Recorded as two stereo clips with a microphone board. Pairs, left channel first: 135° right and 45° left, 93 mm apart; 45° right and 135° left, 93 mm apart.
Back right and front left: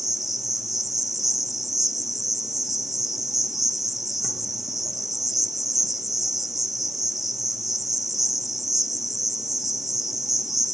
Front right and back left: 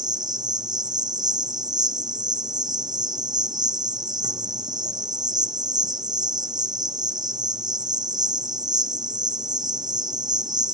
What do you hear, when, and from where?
0.0 s an insect: 130° left, 0.7 m